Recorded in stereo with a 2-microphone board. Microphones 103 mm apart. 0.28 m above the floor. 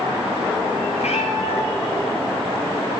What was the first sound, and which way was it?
A cat meowing, 80° left.